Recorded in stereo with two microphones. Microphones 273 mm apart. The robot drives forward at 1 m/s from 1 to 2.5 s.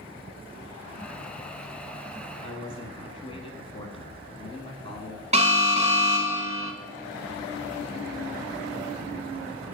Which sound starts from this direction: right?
An alarm, at 5.3 s.